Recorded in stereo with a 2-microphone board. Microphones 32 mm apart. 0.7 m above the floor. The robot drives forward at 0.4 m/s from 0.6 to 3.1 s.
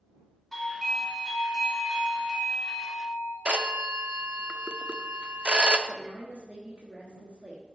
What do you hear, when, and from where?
0.5 s a doorbell: 5° left (ahead or behind), 1.8 m; by 3.4 s 10° left (ahead or behind), 1.0 m
3.5 s a phone ringing: 35° right (ahead or behind), 0.6 m
5.9 s a woman speaking: 45° right (ahead or behind), 1.2 m